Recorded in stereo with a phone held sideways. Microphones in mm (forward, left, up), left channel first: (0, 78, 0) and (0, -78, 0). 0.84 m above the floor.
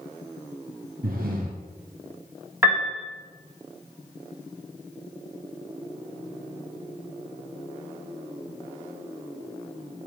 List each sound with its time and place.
1.0 s breathing: 70° right (ahead or behind), 0.8 m
2.6 s a piano: 15° right (ahead or behind), 1.2 m